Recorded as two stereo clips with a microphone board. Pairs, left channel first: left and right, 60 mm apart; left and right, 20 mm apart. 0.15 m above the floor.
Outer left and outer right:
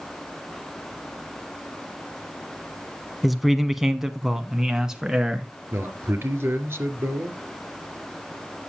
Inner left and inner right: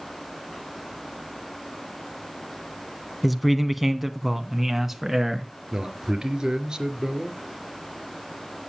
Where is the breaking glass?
No breaking glass in this recording.